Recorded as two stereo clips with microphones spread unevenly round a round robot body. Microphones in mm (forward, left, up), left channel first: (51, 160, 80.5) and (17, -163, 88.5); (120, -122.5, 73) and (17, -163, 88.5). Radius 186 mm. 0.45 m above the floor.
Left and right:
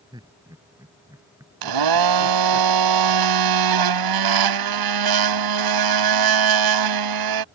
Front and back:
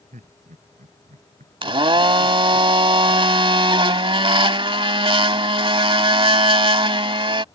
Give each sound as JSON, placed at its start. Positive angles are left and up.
{"t": 0.1, "sound": "laughter", "azimuth_deg": -175}
{"t": 1.6, "sound": "a blender", "azimuth_deg": -115}